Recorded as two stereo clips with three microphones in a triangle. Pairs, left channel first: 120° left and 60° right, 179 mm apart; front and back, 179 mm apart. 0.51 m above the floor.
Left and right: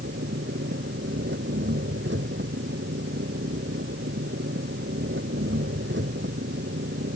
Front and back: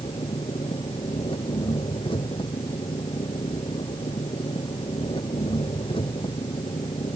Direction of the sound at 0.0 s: 60° right.